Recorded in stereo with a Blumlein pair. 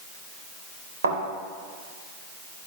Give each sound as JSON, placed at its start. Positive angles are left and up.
{"t": 1.0, "sound": "a thud", "azimuth_deg": -70, "distance_m": 3.0}